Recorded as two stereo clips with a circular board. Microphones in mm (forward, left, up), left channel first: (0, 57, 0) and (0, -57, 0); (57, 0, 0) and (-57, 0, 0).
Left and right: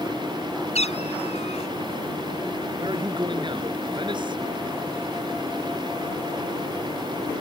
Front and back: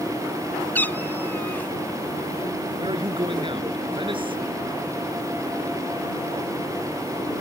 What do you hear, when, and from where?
0.8 s a cat meowing: 75° left
2.8 s a man speaking: 135° right